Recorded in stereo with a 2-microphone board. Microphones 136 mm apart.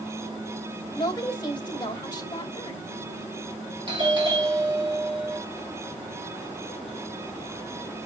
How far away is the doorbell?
About 3 m.